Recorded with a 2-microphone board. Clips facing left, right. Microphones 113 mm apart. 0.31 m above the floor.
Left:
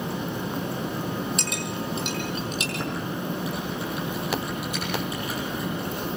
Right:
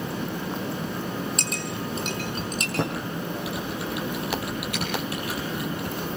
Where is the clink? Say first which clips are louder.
Left 1 dB; 40° right (ahead or behind), 6 m.